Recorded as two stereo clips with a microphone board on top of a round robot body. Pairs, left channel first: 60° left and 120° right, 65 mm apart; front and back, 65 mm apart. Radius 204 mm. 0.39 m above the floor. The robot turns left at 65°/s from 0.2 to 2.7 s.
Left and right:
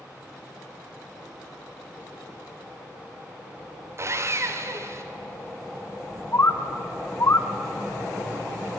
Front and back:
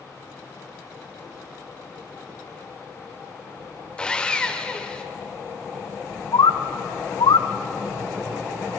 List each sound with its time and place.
4.0 s sawing: 75° right, 1.6 m
6.3 s a bird: 5° left, 0.5 m